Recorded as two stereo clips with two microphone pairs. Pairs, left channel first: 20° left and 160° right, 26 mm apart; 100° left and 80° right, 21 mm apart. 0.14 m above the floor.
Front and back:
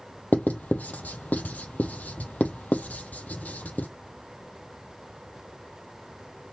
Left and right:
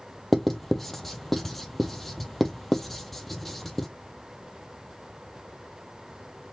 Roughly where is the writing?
Ahead.